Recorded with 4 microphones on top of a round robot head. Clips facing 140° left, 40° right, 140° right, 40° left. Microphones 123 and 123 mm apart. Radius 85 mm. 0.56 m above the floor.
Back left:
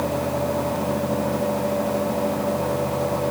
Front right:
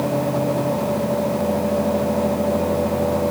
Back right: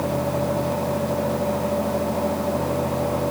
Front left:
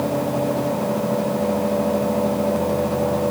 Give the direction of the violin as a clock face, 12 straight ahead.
No violin in this recording.